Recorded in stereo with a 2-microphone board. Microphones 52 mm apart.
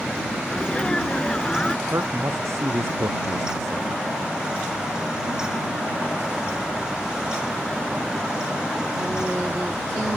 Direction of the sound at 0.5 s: 20° left (ahead or behind).